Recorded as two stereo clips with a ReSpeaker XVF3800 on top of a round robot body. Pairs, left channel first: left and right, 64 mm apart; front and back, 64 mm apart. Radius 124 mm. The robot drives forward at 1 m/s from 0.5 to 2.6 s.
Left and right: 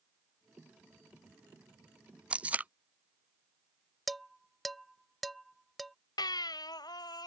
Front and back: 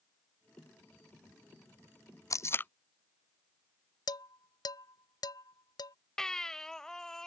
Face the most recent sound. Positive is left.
turn(degrees=80)